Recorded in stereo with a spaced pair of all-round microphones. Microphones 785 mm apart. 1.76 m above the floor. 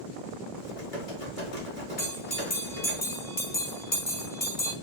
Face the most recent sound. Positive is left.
turn(degrees=65)  # may be behind; listen again after turning